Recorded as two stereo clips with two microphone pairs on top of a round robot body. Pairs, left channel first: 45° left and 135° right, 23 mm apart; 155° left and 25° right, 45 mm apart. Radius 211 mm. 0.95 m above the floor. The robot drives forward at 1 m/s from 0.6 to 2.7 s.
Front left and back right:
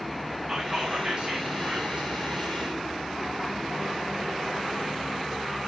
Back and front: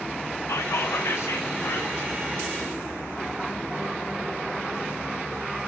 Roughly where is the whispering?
Behind left.